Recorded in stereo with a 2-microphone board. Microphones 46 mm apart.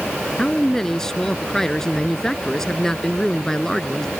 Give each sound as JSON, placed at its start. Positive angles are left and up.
{"t": 0.4, "sound": "a man speaking", "side_deg": 15}